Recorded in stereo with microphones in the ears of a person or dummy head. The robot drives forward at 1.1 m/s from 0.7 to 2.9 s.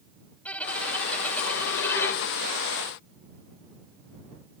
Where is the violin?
5° left (ahead or behind); by 2.3 s 10° left (ahead or behind).